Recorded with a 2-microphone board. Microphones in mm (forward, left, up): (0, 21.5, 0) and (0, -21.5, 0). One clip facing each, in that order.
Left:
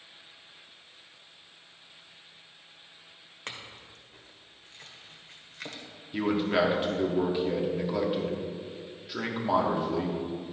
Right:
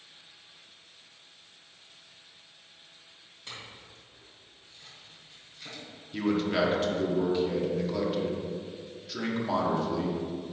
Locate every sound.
3.5 s a clink: 60° left (ahead or behind), 1.5 m
6.1 s a man speaking: 15° left (ahead or behind), 1.4 m